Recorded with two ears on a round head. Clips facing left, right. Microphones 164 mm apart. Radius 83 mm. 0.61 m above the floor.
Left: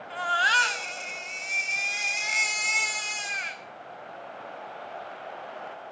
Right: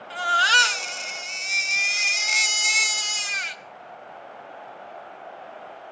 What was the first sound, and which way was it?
A baby crying, 55° right (ahead or behind).